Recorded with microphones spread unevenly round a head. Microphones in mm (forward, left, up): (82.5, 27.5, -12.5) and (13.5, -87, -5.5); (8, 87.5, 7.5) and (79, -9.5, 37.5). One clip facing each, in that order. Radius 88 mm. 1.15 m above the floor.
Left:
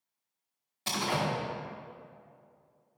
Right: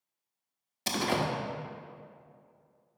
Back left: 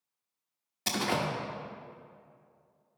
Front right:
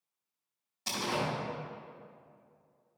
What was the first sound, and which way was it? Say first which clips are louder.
A door slam: right 2 dB, back left 3 dB; 175° right.